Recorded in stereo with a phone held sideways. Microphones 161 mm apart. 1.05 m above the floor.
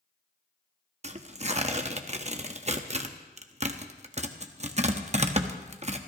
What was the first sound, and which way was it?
Tearing paper, 45° right (ahead or behind).